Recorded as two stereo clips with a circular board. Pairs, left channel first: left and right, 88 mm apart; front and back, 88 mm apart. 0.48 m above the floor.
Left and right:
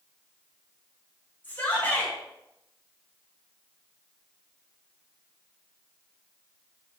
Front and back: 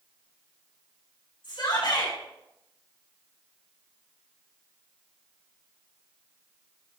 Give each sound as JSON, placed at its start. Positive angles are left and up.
{"t": 1.4, "sound": "a shout", "azimuth_deg": 25, "distance_m": 4.0}